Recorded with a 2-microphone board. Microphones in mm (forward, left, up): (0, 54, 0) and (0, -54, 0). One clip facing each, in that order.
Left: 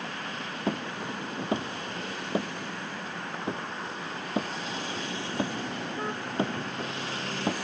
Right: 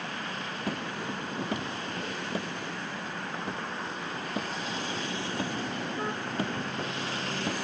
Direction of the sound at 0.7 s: 25° left (ahead or behind).